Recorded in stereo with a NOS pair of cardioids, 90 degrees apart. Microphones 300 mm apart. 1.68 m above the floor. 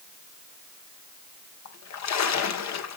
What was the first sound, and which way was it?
A splash, 60° left.